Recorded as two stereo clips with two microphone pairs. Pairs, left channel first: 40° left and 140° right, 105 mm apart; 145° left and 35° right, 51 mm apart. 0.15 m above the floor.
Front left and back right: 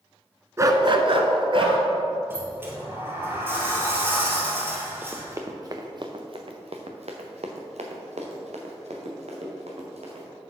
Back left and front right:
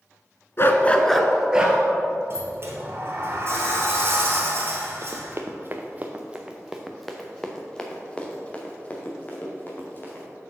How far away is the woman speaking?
No woman speaking in this recording.